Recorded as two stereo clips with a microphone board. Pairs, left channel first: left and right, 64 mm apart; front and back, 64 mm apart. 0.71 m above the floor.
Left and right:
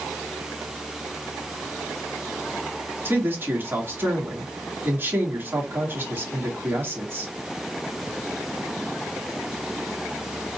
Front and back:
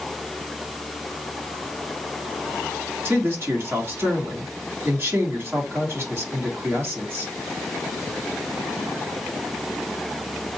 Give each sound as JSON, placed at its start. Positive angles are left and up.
{"t": 3.0, "sound": "a man speaking", "azimuth_deg": -140, "distance_m": 1.8}